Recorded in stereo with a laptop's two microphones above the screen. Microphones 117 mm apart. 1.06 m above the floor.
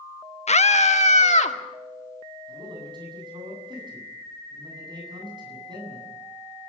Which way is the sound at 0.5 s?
65° left (ahead or behind).